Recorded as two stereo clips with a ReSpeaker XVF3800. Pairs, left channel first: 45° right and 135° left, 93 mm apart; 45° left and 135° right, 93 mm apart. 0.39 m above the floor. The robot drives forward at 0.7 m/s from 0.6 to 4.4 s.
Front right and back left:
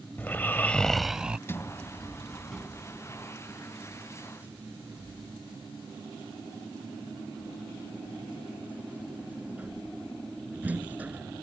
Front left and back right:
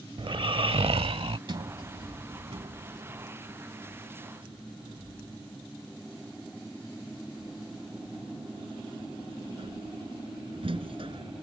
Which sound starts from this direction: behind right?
Snoring, at 0.2 s.